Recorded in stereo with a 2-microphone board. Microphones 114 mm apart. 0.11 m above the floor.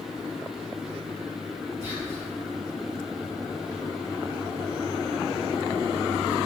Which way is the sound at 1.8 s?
25° right (ahead or behind).